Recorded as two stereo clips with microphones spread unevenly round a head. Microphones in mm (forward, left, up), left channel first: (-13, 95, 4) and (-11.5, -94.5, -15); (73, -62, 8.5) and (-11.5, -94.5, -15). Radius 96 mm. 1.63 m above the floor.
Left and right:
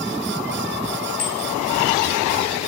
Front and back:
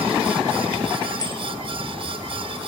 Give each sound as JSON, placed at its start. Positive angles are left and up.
{"t": 1.2, "sound": "a bicycle bell", "azimuth_deg": 95, "distance_m": 9.5}